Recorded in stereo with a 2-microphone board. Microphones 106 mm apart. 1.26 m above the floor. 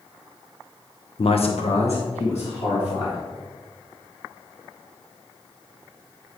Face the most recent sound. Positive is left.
turn(degrees=80)